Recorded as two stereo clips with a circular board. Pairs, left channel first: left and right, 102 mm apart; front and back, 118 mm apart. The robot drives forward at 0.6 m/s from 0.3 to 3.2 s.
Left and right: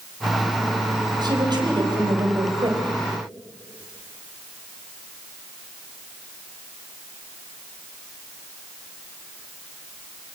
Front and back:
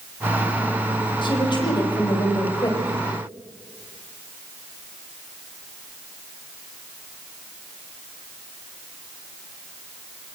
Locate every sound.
1.2 s a woman speaking: 45° right, 5.5 m; by 3.0 s 55° right, 4.5 m